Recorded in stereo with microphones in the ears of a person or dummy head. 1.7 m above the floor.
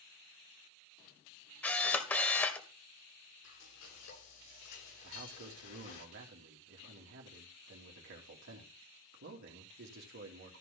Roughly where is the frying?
Left.